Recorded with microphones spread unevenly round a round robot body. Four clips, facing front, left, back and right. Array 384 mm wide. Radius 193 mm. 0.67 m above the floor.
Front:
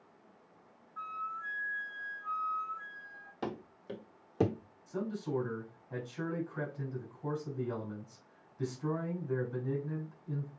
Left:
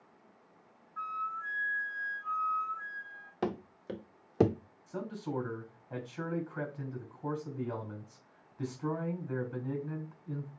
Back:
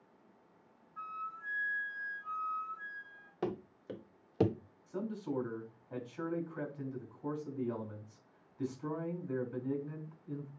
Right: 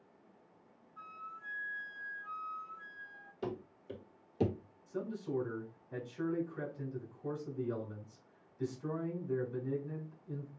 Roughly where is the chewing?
I don't hear chewing.